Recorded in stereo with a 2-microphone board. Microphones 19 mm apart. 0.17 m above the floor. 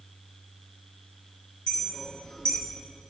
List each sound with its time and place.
1.7 s a clink: 45° left (ahead or behind), 1.8 m